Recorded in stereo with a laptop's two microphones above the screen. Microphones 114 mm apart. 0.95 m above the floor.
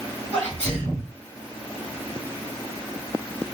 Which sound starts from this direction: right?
A sneeze, at 0.3 s.